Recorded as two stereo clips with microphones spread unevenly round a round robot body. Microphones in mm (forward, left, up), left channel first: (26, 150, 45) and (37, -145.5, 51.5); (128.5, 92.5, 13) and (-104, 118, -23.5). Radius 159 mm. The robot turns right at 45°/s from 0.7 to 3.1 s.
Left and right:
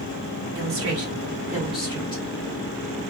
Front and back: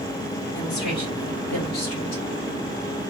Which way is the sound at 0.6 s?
45° right.